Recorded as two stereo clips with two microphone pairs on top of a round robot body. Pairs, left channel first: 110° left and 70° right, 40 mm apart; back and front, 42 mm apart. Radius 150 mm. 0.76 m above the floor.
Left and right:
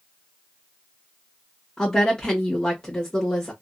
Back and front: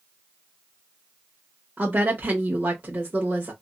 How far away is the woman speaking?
About 1.1 m.